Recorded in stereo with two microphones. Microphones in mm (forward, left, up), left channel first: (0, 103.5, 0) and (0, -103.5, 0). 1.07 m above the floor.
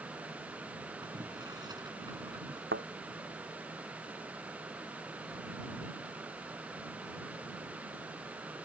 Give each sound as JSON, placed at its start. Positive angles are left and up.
{"t": 1.0, "sound": "boiling", "side_deg": -20}
{"t": 2.7, "sound": "a thud", "side_deg": -70}